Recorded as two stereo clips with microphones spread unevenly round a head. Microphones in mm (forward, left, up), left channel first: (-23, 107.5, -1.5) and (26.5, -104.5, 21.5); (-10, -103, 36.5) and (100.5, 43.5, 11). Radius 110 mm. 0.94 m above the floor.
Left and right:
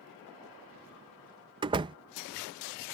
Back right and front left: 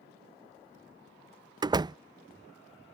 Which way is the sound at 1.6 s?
5° right.